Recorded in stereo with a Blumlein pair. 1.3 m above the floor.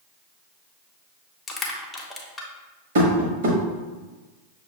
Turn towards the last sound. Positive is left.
turn(degrees=-55)